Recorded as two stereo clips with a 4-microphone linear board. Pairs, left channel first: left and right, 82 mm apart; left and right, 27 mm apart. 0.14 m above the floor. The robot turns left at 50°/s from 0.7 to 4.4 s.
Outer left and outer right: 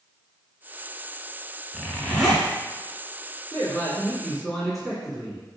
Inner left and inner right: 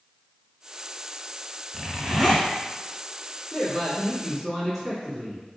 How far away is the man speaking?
About 1.5 m.